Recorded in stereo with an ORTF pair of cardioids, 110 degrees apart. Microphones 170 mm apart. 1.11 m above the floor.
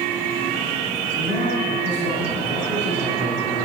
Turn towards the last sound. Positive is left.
turn(degrees=50)